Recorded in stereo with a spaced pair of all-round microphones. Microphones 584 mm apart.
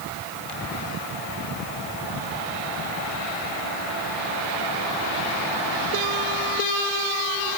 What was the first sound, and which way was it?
Only background noise.